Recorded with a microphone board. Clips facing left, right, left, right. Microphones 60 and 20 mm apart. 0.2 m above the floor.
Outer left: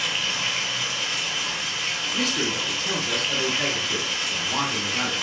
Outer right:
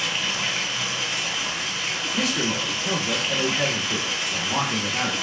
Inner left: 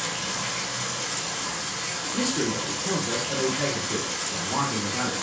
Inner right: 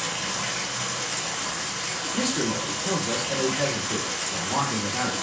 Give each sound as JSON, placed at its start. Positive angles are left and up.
{"t": 0.0, "sound": "running water", "side_deg": -5, "distance_m": 1.4}
{"t": 2.1, "sound": "a man speaking", "side_deg": -20, "distance_m": 1.0}